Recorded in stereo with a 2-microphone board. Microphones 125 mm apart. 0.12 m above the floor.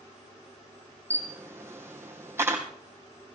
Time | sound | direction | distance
1.1 | a camera shutter | 20° right (ahead or behind) | 3 m